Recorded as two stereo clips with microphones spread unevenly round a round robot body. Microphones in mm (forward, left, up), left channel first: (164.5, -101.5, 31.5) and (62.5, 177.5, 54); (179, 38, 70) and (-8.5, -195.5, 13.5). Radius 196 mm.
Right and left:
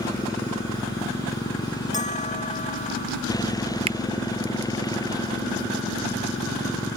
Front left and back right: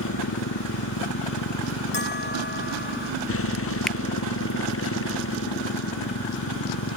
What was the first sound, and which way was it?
A motorcycle, 10° left.